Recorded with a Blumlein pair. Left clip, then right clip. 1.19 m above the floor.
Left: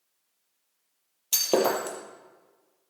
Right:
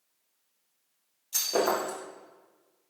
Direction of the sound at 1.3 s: 50° left.